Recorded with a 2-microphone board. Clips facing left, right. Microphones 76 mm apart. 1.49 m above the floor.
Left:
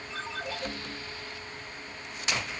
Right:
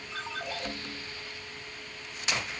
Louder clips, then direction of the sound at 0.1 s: Even; 20° right (ahead or behind).